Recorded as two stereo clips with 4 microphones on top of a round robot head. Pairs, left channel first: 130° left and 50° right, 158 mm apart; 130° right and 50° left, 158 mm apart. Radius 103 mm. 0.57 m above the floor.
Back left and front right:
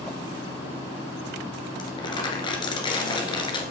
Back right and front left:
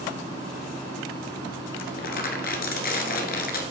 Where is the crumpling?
165° right, 1.8 m.